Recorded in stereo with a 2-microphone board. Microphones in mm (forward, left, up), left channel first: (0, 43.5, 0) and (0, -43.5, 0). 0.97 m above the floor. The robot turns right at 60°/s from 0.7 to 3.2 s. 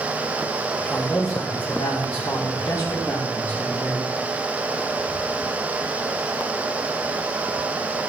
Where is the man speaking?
10° left, 2.5 m; by 4.2 s 150° left, 2.5 m.